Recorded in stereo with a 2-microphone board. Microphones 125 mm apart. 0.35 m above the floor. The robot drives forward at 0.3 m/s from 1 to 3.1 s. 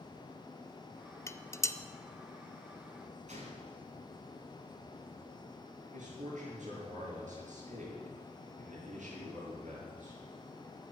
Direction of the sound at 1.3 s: 25° left (ahead or behind).